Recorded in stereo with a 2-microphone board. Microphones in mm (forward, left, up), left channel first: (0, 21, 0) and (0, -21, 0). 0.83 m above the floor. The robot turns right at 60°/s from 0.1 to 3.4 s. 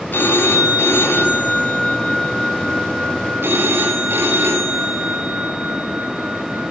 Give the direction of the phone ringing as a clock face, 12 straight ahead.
10 o'clock.